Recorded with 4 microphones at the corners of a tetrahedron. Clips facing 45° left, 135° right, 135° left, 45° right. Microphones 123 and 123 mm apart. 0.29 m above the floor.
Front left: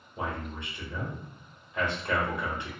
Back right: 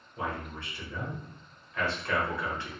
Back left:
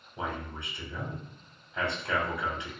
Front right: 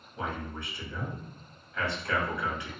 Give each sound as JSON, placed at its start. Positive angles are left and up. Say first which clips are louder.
{"t": 0.2, "sound": "a man speaking", "louder": "front left 1 dB, even", "azimuth_deg": 95, "distance_m": 1.0}